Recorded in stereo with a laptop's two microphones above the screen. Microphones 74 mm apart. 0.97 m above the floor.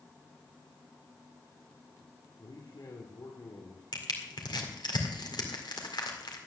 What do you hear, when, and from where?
2.4 s a man speaking: 65° left (ahead or behind), 2 m
3.9 s crushing: 75° left (ahead or behind), 2.0 m